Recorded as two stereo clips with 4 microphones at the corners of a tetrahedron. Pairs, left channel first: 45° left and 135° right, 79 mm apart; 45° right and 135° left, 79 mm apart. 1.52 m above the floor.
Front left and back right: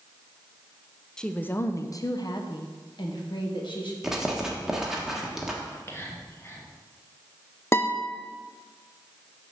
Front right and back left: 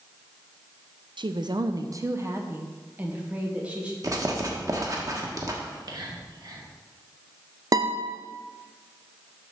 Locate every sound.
1.2 s a woman speaking: 130° left, 0.5 m; by 3.9 s 60° left, 1.7 m
4.0 s writing: 145° left, 1.3 m
5.6 s whispering: 105° left, 1.4 m
7.7 s a guitar: 100° left, 0.5 m